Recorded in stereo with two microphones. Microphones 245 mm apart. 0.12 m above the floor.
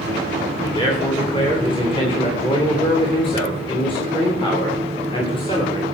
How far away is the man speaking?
About 8 m.